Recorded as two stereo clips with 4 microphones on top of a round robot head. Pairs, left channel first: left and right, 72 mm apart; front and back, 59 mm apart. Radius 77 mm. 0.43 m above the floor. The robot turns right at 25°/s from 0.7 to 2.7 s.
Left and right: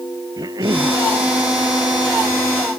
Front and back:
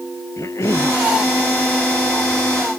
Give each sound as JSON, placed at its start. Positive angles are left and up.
{"t": 0.4, "sound": "a cough", "azimuth_deg": -50}